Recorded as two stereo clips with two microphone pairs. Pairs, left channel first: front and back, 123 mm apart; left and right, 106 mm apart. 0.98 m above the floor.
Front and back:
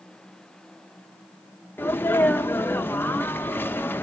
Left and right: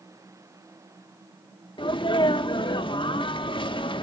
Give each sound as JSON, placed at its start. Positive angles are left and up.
{"t": 1.8, "sound": "a sneeze", "azimuth_deg": 70, "distance_m": 0.6}